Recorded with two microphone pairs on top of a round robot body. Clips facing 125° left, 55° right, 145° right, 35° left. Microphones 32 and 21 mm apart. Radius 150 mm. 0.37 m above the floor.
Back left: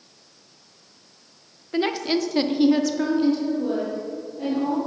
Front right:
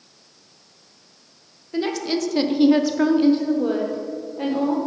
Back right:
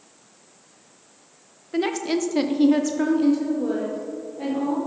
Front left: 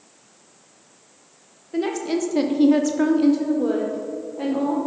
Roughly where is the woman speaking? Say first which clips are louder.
Back left 1 dB, even; behind.